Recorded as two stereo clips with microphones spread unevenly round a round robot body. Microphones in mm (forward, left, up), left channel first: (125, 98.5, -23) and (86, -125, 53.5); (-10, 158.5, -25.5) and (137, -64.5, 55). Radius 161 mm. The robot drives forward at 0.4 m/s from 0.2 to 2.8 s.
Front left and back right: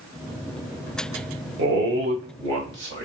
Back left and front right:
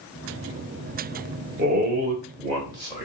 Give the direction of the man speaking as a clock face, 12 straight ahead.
4 o'clock.